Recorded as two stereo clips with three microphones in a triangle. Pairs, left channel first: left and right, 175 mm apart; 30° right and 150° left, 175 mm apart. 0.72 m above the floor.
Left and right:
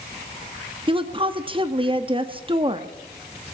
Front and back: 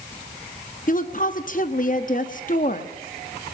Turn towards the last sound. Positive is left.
turn(degrees=-40)